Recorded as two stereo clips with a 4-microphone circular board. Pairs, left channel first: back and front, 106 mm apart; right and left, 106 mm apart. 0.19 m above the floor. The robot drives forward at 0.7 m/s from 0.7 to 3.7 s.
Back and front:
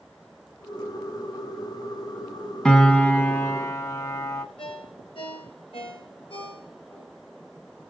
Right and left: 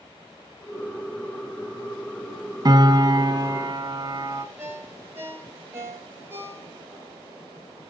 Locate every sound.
2.6 s a piano: 100° left, 1.6 m; by 4.5 s 130° left, 1.8 m
4.6 s a ringtone: 155° left, 3 m